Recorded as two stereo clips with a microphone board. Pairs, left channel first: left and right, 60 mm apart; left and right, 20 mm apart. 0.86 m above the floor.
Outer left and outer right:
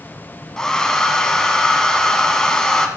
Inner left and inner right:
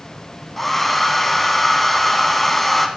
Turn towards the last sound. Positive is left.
turn(degrees=10)  # may be behind; listen again after turning